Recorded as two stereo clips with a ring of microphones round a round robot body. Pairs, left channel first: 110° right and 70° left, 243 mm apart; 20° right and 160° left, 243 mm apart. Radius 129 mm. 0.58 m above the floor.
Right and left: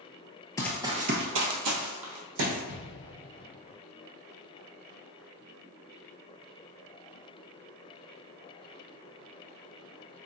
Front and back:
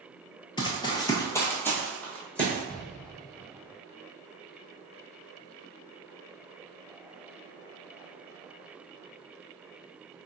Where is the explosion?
110° right, 0.8 m.